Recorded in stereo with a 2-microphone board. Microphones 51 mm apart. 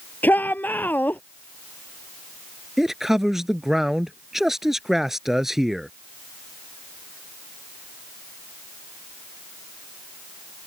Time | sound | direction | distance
0.2 | a shout | 35° left (ahead or behind) | ?
2.8 | a man speaking | 5° right (ahead or behind) | ?